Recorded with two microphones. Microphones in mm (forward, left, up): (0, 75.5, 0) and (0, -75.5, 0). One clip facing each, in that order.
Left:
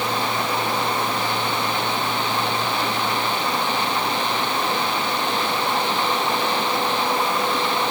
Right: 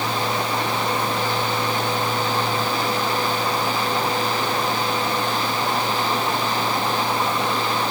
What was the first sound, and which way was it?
Only background noise.